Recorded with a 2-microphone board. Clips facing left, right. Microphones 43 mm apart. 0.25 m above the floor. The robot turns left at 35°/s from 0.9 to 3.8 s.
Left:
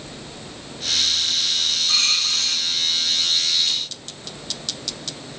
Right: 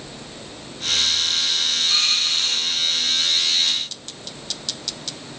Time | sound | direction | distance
1.9 | a dropped coin | 40° left (ahead or behind) | 6 m